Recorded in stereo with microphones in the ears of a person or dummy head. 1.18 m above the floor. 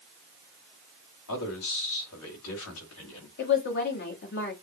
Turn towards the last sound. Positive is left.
turn(degrees=55)  # may be behind; listen again after turning